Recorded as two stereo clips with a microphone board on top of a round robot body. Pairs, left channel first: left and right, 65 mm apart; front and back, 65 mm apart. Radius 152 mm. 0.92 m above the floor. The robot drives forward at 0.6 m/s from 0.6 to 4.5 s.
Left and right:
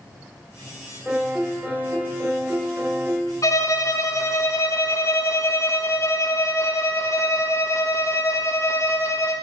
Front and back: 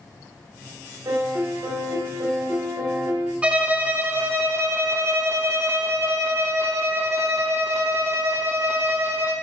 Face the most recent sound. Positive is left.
turn(degrees=130)